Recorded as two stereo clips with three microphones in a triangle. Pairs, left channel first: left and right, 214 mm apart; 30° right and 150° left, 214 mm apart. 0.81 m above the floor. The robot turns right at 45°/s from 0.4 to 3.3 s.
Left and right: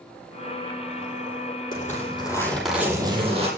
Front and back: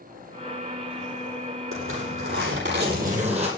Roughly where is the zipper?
Behind left.